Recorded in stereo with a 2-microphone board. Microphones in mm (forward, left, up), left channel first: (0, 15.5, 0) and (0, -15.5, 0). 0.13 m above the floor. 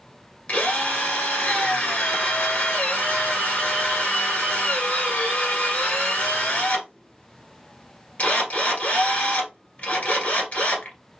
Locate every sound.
0.5 s a drill: 50° left (ahead or behind), 1.5 m